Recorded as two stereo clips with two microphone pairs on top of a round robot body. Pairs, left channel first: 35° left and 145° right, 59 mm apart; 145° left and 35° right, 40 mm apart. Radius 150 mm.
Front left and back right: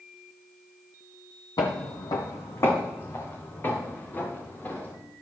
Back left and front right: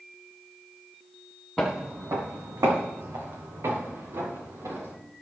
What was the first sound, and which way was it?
Footsteps, 60° left.